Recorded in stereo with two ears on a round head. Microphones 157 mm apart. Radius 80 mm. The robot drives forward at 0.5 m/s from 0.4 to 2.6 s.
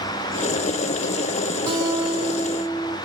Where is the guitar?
20° right (ahead or behind), 1.7 m; by 2.9 s 15° right (ahead or behind), 2 m.